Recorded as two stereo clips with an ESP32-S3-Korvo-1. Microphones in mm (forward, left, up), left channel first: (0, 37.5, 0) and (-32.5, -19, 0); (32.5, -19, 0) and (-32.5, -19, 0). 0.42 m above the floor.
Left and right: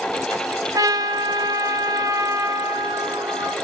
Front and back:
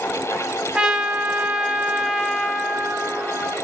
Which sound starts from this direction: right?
A trumpet, at 0.7 s.